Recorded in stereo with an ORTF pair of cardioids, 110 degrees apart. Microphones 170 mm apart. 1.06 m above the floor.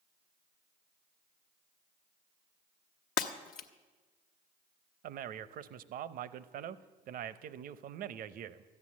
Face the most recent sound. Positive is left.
turn(degrees=-60)